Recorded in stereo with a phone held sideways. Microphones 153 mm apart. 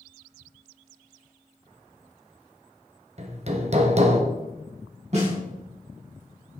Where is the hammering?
45° right (ahead or behind), 1.2 m.